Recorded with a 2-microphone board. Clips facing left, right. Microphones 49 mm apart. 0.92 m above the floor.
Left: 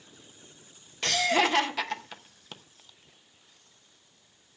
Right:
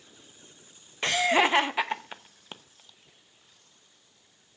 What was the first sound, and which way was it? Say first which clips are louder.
Laughter: right 2 dB; 20° right (ahead or behind).